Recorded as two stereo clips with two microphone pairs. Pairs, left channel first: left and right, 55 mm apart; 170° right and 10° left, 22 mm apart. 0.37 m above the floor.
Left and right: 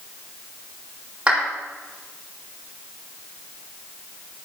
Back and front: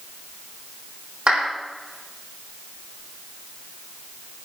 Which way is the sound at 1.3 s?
25° right.